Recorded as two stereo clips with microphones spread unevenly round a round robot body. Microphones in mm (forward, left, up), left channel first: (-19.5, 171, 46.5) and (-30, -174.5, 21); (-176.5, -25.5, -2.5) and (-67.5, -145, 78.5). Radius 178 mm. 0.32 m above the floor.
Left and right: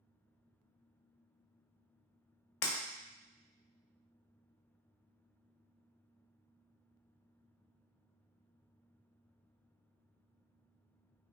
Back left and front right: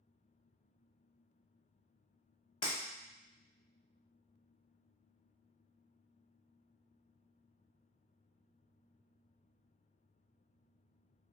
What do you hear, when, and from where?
2.6 s breaking glass: 95° left, 0.6 m